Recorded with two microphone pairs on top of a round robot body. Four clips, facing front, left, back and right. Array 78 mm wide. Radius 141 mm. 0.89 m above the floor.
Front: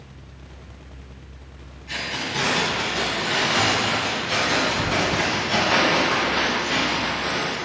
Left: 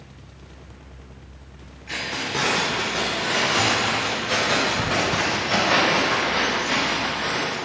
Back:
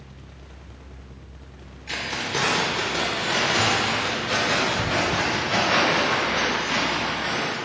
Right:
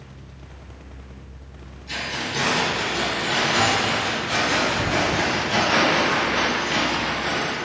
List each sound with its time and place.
1.9 s keys jangling: 160° left, 1.7 m; by 7.5 s 115° left, 4 m